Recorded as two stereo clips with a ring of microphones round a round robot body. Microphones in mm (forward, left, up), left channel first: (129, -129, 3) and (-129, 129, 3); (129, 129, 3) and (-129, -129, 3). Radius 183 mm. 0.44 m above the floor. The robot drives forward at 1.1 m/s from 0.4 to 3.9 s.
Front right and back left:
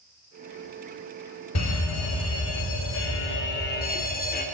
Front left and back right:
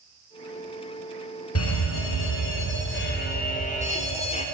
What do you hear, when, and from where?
1.6 s a fire alarm: straight ahead, 4 m; by 4.5 s 10° right, 2.5 m